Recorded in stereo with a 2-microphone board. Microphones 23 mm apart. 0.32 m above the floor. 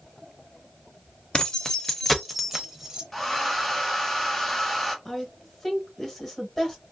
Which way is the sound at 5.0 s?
20° left (ahead or behind).